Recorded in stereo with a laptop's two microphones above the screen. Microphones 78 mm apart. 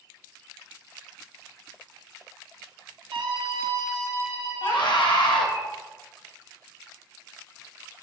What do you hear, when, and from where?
3.1 s a scream: 75° right (ahead or behind), 1.5 m; by 5.6 s 20° right (ahead or behind), 2.5 m
4.6 s a scream: 70° left (ahead or behind), 1.5 m